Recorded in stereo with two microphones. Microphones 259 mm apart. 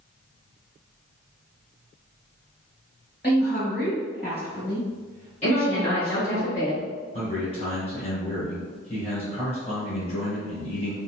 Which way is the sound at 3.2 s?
35° left (ahead or behind).